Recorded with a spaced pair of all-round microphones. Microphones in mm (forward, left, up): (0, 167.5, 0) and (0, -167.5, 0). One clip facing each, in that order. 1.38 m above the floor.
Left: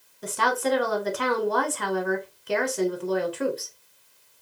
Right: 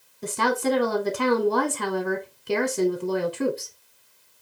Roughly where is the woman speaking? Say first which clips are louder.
Right 3 dB; right.